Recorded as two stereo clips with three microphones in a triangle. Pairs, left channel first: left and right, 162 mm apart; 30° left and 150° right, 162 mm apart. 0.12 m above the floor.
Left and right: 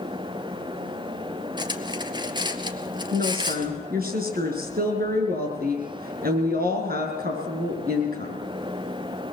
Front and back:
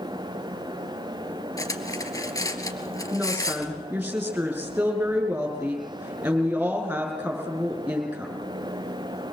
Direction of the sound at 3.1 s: 70° right.